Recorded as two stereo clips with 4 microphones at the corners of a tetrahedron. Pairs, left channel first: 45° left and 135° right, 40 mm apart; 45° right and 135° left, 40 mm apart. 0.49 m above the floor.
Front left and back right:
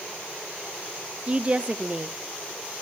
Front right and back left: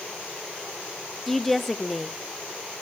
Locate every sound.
1.3 s a woman speaking: 125° right, 0.8 m